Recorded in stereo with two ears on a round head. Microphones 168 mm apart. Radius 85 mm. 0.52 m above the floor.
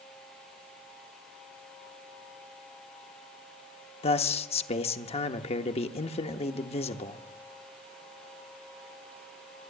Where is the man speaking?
35° left (ahead or behind), 0.8 m.